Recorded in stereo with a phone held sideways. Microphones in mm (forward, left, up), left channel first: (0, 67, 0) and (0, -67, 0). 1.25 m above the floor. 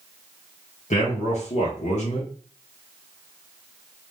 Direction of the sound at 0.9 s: 70° left (ahead or behind).